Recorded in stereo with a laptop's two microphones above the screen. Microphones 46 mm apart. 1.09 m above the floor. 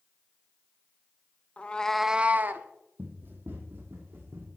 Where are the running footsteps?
50° right (ahead or behind), 2.0 m; by 4.5 s 60° right (ahead or behind), 3 m.